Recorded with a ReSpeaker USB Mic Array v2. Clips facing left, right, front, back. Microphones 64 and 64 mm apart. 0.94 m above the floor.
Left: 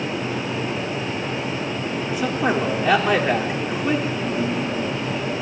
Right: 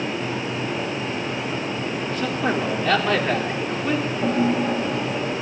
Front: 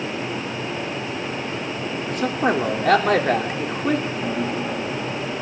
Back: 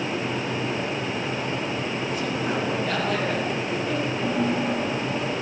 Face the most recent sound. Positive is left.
turn(degrees=-85)